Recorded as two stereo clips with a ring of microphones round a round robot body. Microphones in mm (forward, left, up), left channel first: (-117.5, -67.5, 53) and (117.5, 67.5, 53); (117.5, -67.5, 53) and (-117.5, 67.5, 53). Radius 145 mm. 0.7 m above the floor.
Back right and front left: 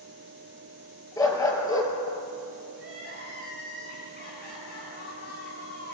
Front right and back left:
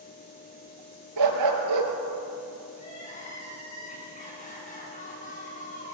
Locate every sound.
1.2 s a dog barking: 130° left, 3.5 m
2.7 s crying: 95° right, 8 m